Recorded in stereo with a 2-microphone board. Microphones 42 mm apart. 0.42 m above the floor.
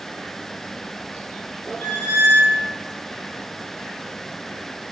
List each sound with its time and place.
1.8 s a squeak: 65° left (ahead or behind), 0.8 m